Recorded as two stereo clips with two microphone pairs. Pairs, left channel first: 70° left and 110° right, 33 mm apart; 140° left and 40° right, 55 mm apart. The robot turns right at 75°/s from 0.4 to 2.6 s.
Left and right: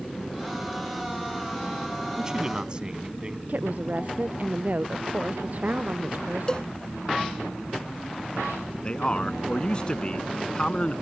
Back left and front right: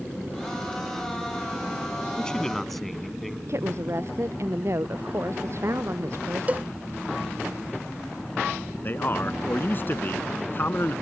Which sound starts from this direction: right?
A woman speaking, at 3.5 s.